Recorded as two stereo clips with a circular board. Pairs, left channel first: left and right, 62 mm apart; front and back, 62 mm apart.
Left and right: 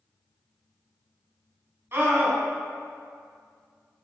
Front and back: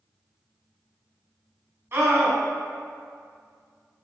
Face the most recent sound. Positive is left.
turn(degrees=-140)